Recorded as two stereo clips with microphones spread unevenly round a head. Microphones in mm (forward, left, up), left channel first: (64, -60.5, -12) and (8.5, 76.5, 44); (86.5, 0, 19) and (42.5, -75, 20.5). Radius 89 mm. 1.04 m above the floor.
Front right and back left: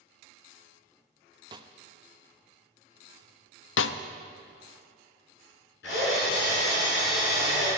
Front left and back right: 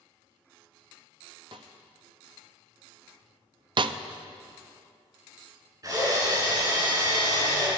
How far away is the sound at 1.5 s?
About 0.5 m.